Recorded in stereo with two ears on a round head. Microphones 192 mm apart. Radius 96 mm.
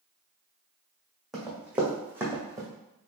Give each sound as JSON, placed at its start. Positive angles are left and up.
{"t": 1.3, "sound": "running footsteps", "side_deg": 0, "distance_m": 1.9}